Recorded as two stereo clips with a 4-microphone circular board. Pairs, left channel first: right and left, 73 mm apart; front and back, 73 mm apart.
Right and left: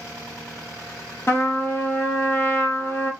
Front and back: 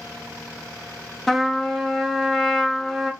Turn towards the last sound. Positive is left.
turn(degrees=-85)